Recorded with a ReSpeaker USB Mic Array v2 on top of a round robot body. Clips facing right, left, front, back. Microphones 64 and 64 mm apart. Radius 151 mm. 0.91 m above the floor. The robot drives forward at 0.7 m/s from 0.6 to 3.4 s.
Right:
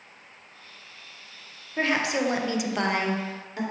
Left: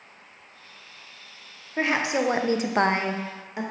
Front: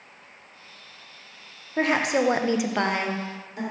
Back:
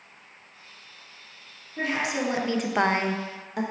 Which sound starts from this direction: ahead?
A woman speaking, at 1.8 s.